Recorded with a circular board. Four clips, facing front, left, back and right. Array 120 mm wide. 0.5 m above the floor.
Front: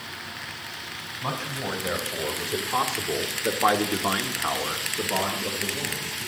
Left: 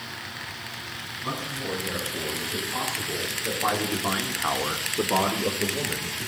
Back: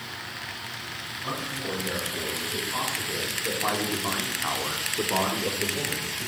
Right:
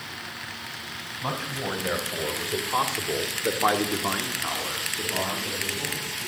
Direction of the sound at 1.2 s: 55° right.